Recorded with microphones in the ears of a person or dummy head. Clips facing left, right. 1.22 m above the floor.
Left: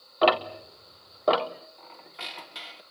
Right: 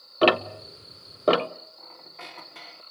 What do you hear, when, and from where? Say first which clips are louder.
0.2 s ticking: right 2 dB; 40° right (ahead or behind), 0.7 m
1.8 s a squeak: even; 15° left (ahead or behind), 1.4 m